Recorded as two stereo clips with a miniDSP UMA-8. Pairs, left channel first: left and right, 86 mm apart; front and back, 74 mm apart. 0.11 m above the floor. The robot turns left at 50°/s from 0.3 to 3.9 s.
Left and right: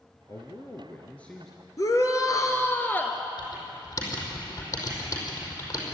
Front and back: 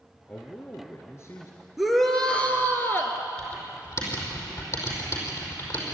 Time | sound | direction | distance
0.3 | a man speaking | 70° left | 2 m
1.8 | a shout | 95° left | 2.0 m
3.4 | typing on a keyboard | 65° left | 5 m